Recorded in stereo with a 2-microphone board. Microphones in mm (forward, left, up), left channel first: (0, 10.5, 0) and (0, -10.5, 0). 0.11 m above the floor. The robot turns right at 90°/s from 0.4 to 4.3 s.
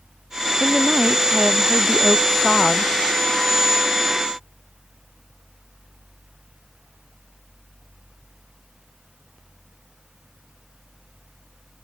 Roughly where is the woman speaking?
Behind right.